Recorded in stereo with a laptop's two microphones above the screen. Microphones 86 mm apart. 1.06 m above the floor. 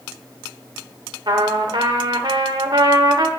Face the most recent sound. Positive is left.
turn(degrees=-65)  # may be behind; listen again after turning